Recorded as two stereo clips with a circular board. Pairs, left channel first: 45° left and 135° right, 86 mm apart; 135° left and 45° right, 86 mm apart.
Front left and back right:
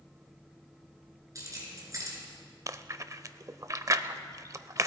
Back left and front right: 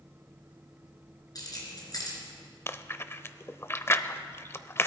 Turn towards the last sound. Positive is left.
turn(degrees=-175)